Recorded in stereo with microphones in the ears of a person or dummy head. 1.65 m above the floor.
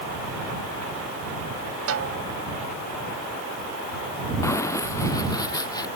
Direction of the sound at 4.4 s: 10° left (ahead or behind).